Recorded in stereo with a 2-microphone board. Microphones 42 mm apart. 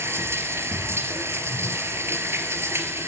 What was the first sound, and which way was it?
Running water, 80° right.